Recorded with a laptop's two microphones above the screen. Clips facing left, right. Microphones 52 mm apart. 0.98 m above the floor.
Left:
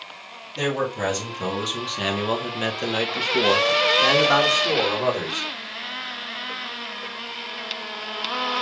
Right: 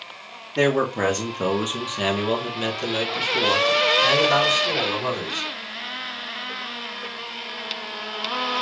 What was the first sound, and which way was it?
A man speaking, 55° right (ahead or behind).